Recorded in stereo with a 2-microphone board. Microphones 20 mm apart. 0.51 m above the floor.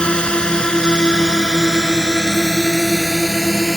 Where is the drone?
50° left (ahead or behind); by 3.8 s 15° left (ahead or behind).